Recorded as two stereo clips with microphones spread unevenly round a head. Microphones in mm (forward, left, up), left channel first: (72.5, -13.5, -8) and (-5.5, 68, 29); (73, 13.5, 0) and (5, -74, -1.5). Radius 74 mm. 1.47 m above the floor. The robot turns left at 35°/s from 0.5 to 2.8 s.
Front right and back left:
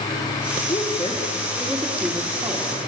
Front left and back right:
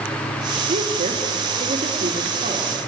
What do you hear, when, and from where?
0.7 s a woman speaking: 110° right, 2.5 m; by 2.8 s 175° left, 2.5 m